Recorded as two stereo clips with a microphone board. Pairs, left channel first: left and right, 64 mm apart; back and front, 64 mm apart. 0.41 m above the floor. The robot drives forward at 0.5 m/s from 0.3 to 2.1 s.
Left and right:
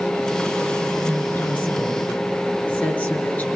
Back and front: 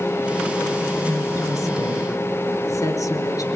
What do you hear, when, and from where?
1.0 s a woman speaking: 150° left, 6 m; by 3.5 s 155° left, 6.5 m